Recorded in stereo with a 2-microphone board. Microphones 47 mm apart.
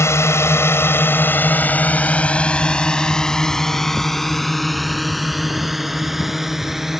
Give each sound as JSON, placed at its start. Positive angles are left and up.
{"t": 0.0, "sound": "a drone", "side_deg": 75}